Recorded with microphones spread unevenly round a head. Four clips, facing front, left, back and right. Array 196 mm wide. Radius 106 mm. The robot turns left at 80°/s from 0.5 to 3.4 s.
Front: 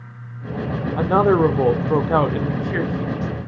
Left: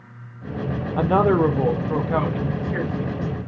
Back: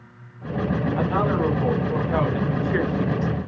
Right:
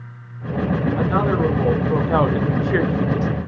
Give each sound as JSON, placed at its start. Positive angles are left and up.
{"t": 1.0, "sound": "a woman speaking", "azimuth_deg": 60, "distance_m": 0.7}